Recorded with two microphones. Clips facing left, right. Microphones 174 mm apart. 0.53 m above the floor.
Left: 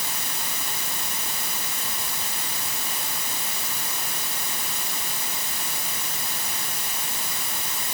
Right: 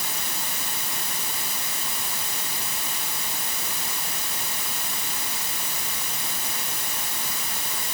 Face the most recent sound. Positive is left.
No sound to turn to.